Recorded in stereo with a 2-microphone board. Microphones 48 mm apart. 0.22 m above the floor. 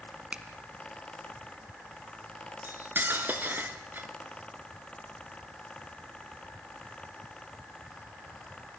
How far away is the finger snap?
About 1.7 m.